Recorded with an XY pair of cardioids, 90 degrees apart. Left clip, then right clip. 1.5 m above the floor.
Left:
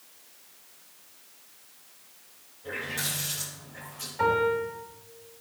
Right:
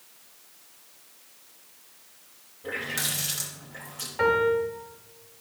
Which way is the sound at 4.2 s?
55° right.